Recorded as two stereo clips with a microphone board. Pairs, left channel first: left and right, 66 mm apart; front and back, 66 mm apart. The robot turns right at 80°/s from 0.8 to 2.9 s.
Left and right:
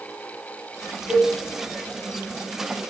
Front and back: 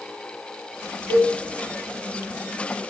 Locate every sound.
1.1 s a cowbell: 20° right, 1.8 m; by 1.3 s straight ahead, 1.8 m